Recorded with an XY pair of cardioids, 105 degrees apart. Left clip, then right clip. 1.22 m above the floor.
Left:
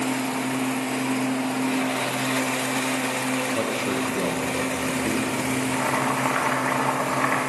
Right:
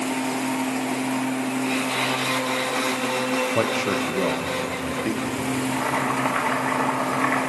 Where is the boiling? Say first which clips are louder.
Right 1 dB; straight ahead, 1.3 m.